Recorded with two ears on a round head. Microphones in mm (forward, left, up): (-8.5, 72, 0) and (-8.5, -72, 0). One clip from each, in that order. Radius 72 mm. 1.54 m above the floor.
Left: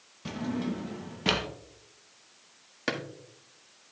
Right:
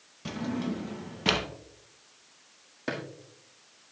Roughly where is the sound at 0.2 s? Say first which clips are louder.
Even; centre.